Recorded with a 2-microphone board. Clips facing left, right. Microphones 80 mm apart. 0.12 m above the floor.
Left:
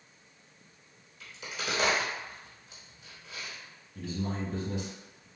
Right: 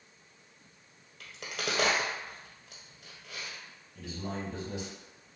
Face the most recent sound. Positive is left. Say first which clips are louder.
# left 3 dB
turn(degrees=30)  # may be behind; listen again after turning